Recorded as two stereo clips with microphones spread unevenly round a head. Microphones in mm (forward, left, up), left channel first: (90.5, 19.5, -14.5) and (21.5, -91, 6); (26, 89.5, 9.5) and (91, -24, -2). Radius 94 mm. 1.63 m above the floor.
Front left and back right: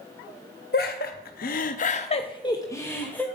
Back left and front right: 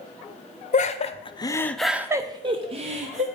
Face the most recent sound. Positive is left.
turn(degrees=-25)